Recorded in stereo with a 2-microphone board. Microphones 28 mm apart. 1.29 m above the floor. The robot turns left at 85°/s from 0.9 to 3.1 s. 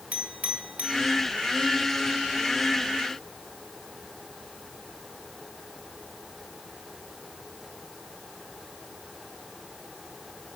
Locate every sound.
0.1 s a clink: 60° right (ahead or behind), 3 m; by 1.0 s 65° right (ahead or behind), 3 m